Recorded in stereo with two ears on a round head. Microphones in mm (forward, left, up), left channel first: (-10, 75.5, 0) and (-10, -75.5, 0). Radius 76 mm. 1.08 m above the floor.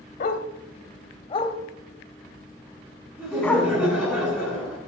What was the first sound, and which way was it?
A dog barking, 50° left (ahead or behind).